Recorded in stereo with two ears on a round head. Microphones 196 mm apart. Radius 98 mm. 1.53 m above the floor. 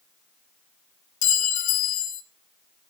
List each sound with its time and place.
1.2 s a clink: 35° left (ahead or behind), 1.0 m